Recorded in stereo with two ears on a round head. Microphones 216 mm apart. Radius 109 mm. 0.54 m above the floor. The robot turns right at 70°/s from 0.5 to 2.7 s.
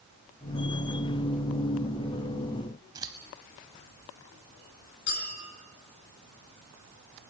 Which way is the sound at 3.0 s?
15° right (ahead or behind).